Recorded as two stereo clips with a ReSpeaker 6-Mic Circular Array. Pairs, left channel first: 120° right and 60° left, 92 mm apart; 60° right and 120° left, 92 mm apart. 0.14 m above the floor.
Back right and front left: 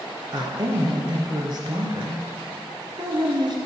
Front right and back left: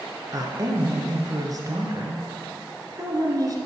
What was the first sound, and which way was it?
A woman speaking, 80° left.